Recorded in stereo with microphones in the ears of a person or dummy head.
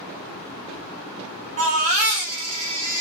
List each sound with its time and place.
1.6 s a baby crying: 35° right (ahead or behind), 1.0 m